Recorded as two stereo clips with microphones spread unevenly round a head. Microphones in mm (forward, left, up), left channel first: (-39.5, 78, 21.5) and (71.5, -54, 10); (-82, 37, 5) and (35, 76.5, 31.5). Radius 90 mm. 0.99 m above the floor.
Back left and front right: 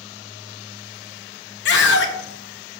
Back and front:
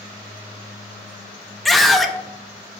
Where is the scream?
115° left, 1.1 m.